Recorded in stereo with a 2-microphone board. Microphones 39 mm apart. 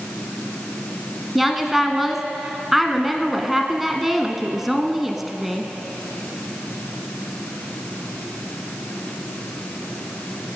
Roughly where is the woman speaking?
Centre.